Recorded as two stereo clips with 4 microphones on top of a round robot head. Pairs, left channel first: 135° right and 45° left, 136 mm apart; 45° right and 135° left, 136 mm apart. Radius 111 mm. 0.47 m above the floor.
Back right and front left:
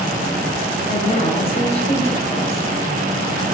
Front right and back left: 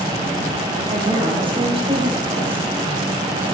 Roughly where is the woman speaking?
Behind.